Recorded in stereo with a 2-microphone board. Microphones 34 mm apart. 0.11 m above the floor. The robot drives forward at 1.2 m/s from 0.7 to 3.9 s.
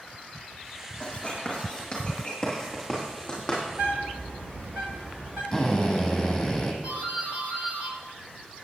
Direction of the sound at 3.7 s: 45° right (ahead or behind).